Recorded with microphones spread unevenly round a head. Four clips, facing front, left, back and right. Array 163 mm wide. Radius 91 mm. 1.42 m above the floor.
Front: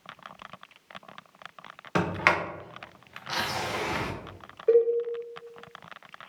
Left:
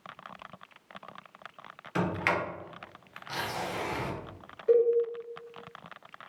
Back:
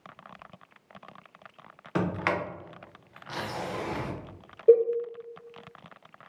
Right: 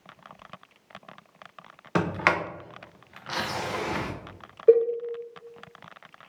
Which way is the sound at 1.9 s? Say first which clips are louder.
Right 4 dB, front 3 dB; 45° right.